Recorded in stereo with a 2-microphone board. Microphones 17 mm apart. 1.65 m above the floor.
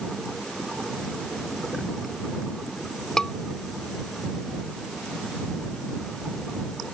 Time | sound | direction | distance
3.2 | a scream | 45° left (ahead or behind) | ?